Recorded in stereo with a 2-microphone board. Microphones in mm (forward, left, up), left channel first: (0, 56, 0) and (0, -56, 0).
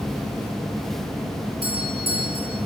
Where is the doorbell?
55° right (ahead or behind), 6.5 m.